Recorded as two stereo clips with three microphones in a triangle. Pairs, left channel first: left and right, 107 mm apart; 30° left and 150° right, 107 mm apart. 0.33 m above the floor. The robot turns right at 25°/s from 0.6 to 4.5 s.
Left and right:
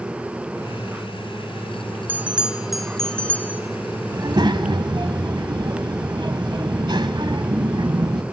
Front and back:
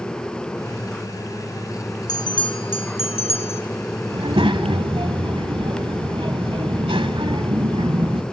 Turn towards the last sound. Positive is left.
turn(degrees=-125)